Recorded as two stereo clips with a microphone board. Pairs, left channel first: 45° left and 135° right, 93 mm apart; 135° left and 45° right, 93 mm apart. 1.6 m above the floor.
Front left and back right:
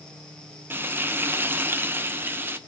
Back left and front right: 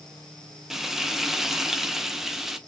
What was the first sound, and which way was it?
Frying, 125° right.